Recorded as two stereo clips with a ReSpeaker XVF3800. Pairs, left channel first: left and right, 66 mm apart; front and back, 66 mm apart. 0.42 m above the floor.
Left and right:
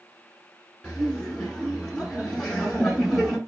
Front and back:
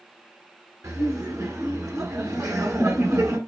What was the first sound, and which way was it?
Laughter, 170° left.